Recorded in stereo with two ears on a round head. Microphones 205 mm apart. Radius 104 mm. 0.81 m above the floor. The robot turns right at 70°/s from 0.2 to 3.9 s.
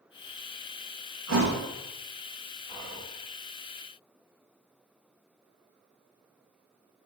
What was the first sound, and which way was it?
A thud, 70° right (ahead or behind).